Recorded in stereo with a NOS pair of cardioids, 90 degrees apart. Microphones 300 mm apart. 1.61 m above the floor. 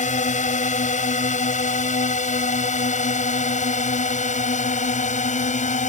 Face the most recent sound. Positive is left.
turn(degrees=25)